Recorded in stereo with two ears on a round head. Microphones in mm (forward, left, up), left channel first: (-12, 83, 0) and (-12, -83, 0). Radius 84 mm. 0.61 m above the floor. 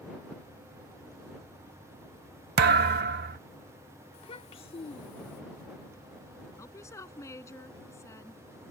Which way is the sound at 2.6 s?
60° right (ahead or behind).